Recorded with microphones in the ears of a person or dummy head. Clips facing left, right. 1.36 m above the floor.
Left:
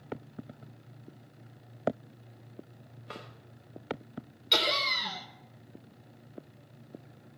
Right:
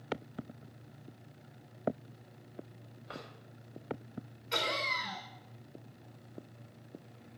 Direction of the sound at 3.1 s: 30° left (ahead or behind).